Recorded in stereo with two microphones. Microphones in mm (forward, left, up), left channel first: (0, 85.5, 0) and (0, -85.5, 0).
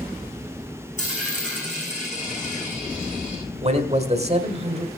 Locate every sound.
1.0 s a dropped coin: 45° left (ahead or behind), 6 m
3.6 s a man speaking: 40° right (ahead or behind), 1.4 m